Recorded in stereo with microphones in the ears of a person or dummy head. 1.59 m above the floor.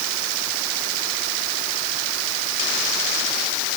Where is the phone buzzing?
No phone buzzing in this recording.